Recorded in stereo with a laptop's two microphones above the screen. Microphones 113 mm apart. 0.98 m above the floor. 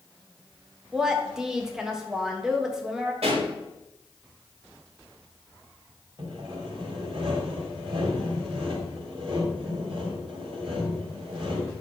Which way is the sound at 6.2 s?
55° right (ahead or behind).